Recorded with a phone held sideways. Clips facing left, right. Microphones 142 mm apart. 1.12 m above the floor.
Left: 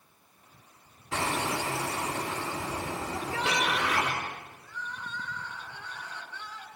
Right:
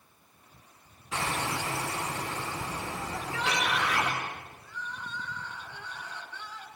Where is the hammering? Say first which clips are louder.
Left 2 dB; 85° left, 3.5 m.